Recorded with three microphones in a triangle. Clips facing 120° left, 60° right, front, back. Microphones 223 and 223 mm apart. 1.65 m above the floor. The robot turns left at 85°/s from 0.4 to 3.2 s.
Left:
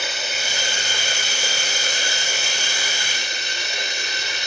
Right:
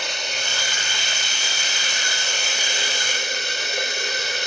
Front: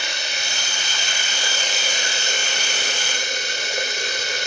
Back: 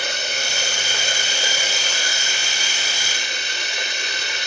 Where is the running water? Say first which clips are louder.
Left 1 dB, back 4 dB; 155° right, 3.5 m; by 4.5 s 35° right, 3.5 m.